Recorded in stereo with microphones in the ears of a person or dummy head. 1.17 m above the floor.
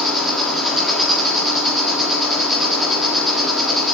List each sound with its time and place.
0.0 s an insect: 5° right (ahead or behind), 1.4 m